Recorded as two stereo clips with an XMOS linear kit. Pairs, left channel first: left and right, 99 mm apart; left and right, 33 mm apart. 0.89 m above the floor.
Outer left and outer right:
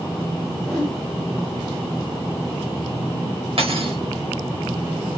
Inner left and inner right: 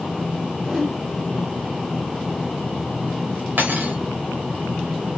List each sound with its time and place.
0.6 s a whoosh: centre (ahead or behind), 1.8 m
3.6 s cutlery clinking: 70° right (ahead or behind), 1.0 m